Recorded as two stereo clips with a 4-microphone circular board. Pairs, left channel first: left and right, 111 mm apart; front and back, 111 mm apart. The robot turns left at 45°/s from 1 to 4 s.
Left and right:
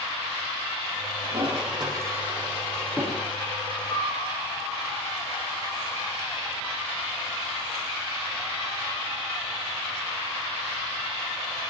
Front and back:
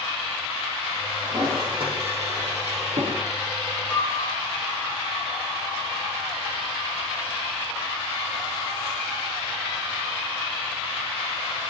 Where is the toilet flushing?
110° right, 6.5 m; by 3.2 s 165° left, 6.5 m.